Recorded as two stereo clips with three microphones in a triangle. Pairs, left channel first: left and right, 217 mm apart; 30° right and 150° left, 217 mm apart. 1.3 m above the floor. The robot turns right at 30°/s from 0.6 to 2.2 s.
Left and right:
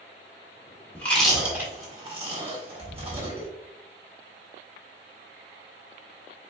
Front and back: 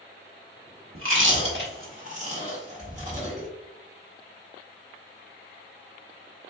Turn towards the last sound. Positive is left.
turn(degrees=-150)